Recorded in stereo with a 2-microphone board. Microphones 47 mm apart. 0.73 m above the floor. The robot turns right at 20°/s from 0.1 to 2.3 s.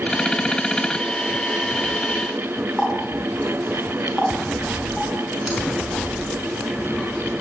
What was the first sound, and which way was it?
A running tap, centre (ahead or behind).